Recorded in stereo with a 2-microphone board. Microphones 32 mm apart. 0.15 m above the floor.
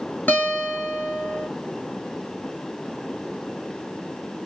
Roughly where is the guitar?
Left.